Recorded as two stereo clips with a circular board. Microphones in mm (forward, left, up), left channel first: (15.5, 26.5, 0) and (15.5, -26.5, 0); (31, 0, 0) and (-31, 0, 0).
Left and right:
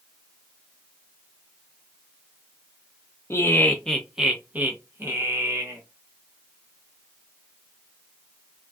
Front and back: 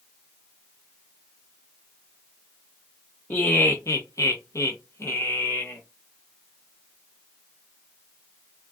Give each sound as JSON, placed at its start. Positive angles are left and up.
{"t": 3.3, "sound": "laughter", "azimuth_deg": 60, "distance_m": 0.6}